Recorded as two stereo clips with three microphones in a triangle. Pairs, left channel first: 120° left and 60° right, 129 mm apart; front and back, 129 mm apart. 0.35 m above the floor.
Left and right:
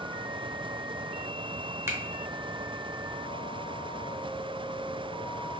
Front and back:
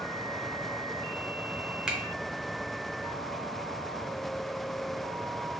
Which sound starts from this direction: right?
A finger snap, at 1.9 s.